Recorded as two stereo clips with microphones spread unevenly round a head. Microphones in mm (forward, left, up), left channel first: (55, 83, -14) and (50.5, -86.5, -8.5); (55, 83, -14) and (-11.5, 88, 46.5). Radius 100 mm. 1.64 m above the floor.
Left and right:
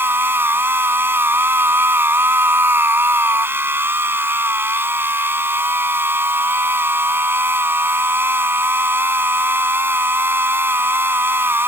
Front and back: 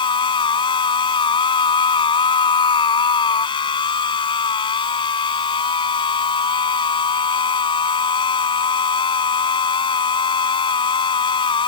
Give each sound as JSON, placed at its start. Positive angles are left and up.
{"t": 0.0, "sound": "a machine running", "azimuth_deg": -15}